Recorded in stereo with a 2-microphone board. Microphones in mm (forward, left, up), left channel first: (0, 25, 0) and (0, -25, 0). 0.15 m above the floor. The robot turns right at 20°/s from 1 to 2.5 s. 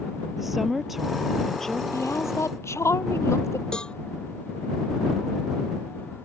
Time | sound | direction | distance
0.4 | a woman speaking | 5° right (ahead or behind) | ?
1.9 | a woman speaking | 75° left (ahead or behind) | ?
3.7 | a cowbell | 20° left (ahead or behind) | ?